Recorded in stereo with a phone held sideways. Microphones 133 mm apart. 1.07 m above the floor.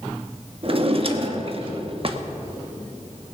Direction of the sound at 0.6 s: 45° right (ahead or behind).